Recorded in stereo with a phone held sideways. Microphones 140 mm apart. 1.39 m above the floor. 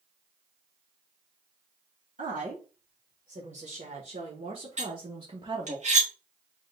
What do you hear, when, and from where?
2.2 s a woman speaking: 80° right, 2.5 m; by 5.8 s 35° right (ahead or behind), 0.9 m
4.8 s cutlery clinking: 55° right (ahead or behind), 1.7 m